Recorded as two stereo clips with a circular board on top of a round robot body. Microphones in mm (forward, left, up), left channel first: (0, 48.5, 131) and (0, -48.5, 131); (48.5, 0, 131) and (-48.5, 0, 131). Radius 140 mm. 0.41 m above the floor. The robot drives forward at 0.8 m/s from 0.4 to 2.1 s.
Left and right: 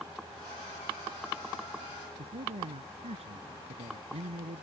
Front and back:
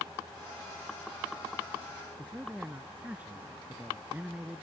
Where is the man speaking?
105° right.